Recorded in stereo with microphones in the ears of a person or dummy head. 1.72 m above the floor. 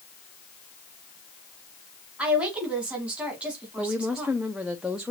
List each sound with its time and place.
2.2 s a woman speaking: 10° right (ahead or behind), 2.5 m
3.8 s a woman speaking: 5° right (ahead or behind), 0.6 m